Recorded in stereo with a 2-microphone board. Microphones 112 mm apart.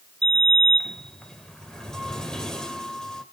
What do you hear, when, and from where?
0.2 s a sliding door: 5° left (ahead or behind), 1.8 m